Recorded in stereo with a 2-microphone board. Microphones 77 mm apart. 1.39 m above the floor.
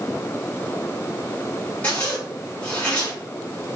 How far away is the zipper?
About 1.4 m.